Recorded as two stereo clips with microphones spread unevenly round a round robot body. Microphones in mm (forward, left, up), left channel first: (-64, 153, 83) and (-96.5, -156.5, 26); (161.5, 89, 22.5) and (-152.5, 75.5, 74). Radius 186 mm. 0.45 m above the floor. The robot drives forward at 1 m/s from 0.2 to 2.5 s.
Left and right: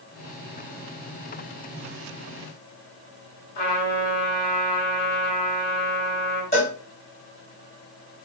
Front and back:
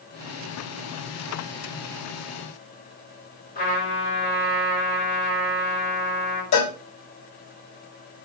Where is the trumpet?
65° left, 4 m.